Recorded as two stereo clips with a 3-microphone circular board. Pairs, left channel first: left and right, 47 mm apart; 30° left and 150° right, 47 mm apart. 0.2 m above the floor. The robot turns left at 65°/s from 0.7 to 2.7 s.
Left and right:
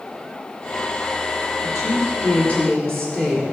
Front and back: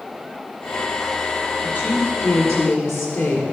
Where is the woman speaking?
85° left, 3.5 m; by 3.4 s 15° left, 3.5 m.